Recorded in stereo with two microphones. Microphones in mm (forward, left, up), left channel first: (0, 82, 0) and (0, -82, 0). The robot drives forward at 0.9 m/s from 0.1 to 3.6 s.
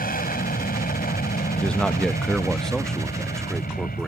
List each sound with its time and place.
0.0 s an aircraft: 60° left (ahead or behind)
1.6 s a man speaking: 5° left (ahead or behind)